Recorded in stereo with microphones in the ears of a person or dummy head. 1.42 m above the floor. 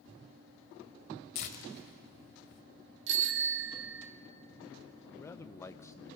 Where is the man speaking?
15° left (ahead or behind), 0.8 m.